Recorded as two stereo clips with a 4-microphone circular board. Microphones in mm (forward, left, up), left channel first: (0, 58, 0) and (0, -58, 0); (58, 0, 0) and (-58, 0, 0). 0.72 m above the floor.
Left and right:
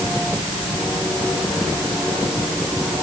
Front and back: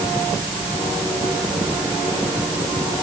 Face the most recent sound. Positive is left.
No sound to turn to.